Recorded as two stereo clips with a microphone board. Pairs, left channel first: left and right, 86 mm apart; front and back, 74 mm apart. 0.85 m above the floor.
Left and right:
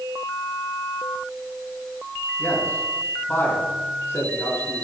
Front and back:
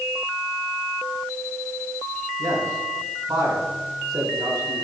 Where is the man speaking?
150° left, 4 m.